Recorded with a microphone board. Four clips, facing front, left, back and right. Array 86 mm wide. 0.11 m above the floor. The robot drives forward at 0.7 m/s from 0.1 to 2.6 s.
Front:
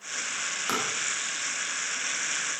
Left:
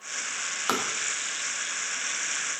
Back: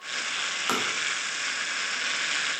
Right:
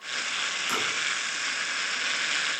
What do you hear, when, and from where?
0.7 s tapping: 105° left, 3 m; by 0.9 s 110° left, 3 m